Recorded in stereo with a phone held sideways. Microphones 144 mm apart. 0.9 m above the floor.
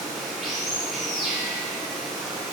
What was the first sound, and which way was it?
Running water, centre (ahead or behind).